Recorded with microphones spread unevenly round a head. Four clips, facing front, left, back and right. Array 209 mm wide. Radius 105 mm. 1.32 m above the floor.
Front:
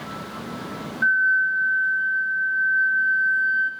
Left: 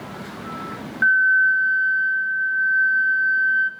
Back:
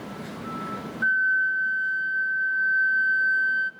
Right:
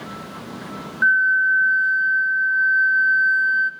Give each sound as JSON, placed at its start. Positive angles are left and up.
{"t": 1.0, "sound": "a flute", "azimuth_deg": -145, "distance_m": 0.7}